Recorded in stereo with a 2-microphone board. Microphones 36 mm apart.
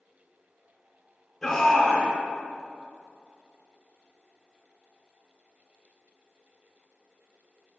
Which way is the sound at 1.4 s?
10° left (ahead or behind).